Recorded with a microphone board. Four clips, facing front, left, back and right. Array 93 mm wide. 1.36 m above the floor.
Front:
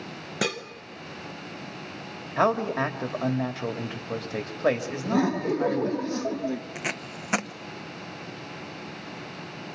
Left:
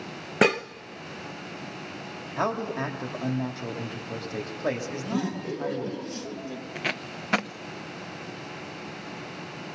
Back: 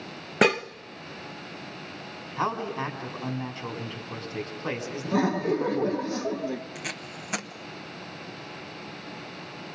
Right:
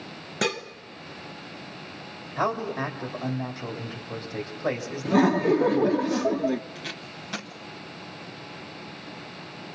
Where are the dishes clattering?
135° left, 0.6 m.